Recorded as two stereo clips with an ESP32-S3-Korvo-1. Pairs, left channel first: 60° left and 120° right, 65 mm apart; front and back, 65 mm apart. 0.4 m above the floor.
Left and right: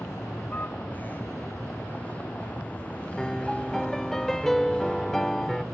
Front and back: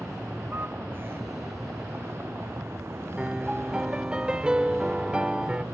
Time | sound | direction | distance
0.0 | a vehicle | 120° left | ?
3.2 | a piano | 135° left | ?